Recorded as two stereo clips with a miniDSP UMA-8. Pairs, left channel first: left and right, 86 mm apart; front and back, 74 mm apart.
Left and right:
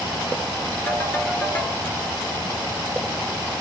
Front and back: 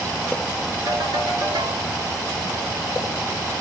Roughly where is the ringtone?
Behind left.